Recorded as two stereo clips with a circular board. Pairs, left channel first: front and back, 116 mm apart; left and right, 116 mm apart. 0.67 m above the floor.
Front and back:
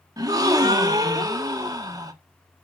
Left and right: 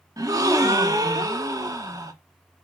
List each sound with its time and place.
0.2 s a gasp: 135° right, 1.3 m